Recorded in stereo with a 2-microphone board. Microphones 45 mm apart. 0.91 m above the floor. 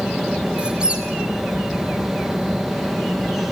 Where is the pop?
No pop in this recording.